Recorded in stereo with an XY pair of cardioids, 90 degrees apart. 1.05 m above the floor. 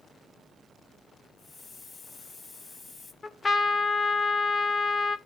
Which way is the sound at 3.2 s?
35° left.